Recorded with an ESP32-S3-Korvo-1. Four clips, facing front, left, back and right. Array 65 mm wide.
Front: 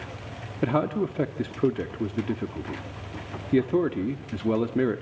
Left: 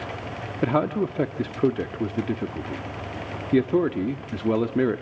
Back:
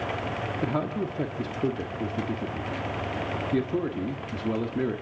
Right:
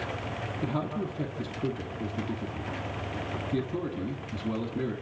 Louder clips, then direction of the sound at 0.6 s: Left 10 dB, front 6 dB; 65° left.